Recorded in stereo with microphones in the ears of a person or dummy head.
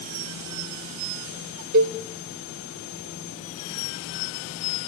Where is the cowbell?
55° right (ahead or behind), 0.7 m.